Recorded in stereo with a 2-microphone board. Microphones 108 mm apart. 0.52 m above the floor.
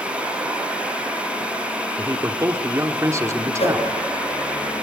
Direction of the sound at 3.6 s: 70° left (ahead or behind).